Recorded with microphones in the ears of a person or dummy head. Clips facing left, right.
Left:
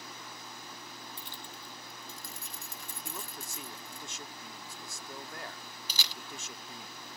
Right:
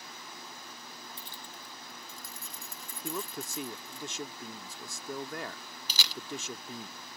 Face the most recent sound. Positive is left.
turn(degrees=-65)  # may be behind; listen again after turning